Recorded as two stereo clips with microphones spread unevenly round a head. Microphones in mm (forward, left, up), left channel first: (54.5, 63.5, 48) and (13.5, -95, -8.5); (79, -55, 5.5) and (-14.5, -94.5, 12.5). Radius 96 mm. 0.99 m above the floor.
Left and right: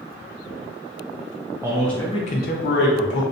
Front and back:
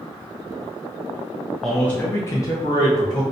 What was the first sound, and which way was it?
A man speaking, 60° right.